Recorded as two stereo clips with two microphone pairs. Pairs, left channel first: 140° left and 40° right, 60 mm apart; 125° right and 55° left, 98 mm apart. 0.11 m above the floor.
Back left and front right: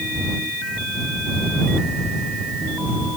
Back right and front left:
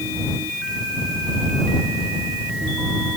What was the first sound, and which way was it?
Only background noise.